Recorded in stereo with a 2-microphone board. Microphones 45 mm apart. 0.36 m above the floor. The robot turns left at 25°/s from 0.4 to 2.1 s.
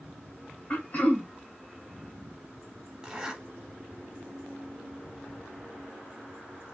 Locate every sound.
0.7 s throat clearing: 40° left (ahead or behind), 0.7 m
3.0 s a zipper: 15° right (ahead or behind), 0.9 m